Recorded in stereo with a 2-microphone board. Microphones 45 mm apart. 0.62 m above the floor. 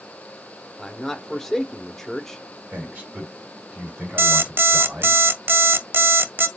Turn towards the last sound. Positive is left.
turn(degrees=-55)  # may be behind; listen again after turning